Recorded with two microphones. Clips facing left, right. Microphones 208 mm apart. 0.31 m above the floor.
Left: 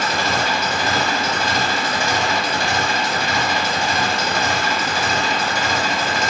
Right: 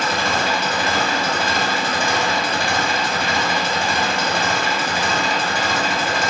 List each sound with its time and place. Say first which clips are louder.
0.0 s an engine running: even; 55° right (ahead or behind), 0.7 m